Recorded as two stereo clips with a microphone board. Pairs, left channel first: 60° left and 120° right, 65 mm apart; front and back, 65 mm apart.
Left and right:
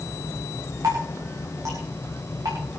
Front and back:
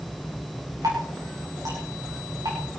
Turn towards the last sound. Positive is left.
turn(degrees=-155)